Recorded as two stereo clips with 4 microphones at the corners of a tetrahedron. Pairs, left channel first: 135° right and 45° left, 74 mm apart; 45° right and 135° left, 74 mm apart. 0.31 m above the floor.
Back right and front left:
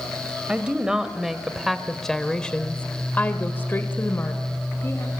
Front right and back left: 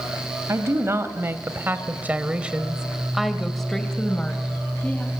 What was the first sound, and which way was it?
A woman speaking, 115° left.